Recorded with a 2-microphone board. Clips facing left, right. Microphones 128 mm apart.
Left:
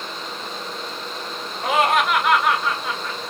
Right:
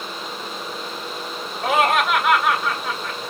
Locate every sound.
1.6 s laughter: 5° right (ahead or behind), 1.7 m